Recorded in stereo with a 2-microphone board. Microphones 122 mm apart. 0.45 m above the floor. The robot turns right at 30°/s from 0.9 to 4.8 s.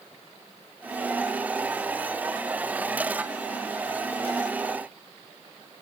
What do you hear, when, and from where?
Only background noise.